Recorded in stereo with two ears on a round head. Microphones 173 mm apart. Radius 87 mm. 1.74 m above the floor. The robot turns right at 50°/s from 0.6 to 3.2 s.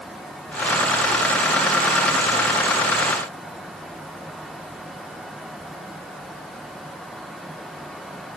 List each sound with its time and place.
Only background noise.